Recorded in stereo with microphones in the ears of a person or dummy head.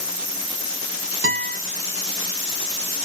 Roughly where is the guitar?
Right.